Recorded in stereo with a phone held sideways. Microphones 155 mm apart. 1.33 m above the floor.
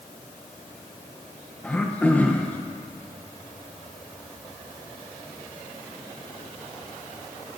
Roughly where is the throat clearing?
Centre.